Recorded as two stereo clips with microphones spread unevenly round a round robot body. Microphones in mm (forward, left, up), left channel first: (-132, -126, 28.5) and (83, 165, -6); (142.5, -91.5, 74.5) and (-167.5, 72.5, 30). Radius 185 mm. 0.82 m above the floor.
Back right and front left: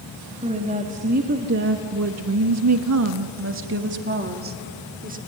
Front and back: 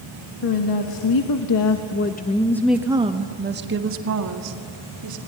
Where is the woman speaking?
15° right, 1.8 m; by 5.2 s 120° left, 2.5 m.